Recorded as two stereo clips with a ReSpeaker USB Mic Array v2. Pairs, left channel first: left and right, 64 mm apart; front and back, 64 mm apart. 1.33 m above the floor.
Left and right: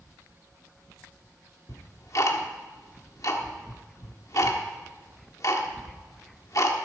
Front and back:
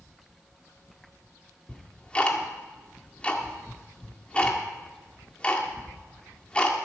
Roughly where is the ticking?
Left.